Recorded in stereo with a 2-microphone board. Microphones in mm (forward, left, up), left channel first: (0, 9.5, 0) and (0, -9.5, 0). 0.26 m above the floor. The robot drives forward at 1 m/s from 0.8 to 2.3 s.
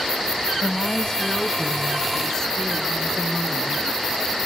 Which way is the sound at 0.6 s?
50° left (ahead or behind).